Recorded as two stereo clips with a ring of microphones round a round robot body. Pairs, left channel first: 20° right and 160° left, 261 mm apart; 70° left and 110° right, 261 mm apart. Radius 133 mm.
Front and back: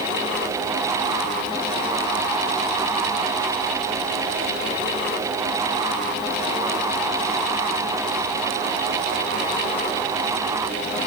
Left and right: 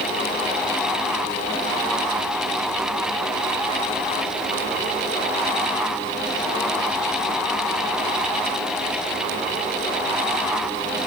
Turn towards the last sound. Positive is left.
No sound to turn to.